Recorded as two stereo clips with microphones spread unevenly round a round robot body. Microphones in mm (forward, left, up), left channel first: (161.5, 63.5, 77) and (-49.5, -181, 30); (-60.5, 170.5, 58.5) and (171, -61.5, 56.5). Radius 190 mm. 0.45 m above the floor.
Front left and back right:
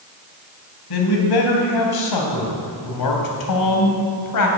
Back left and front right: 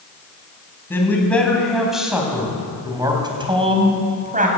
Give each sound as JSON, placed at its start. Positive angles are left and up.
{"t": 0.9, "sound": "a man speaking", "azimuth_deg": 50, "distance_m": 3.5}